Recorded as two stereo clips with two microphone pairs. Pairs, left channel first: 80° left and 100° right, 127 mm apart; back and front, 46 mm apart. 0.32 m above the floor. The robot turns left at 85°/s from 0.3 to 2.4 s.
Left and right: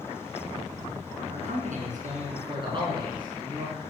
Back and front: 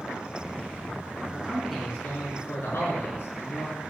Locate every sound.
1.3 s a man speaking: 55° right, 4.5 m; by 3.8 s 150° right, 4.5 m